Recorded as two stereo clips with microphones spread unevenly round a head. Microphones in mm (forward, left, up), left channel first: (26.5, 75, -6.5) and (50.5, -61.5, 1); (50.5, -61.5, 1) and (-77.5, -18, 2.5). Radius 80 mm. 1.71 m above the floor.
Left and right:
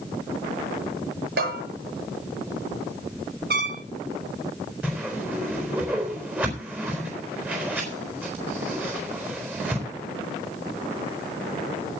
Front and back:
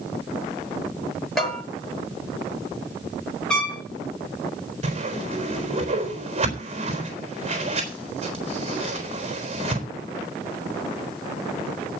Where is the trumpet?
100° right, 3.5 m.